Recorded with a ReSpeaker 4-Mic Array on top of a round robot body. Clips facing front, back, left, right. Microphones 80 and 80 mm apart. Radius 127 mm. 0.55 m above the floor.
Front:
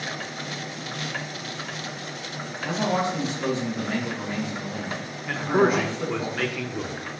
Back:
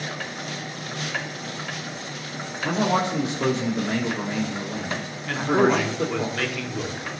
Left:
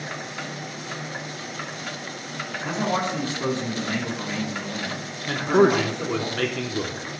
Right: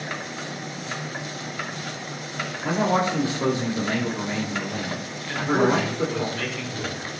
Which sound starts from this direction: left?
A man speaking, at 5.3 s.